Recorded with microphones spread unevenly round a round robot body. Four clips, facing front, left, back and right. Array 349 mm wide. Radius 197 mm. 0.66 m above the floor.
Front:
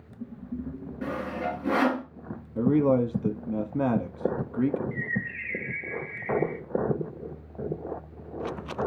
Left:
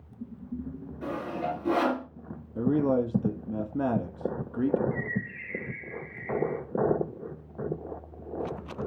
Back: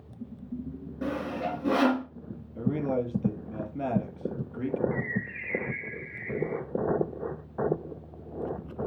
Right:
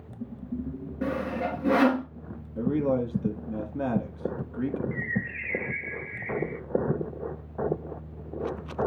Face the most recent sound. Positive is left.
turn(degrees=-105)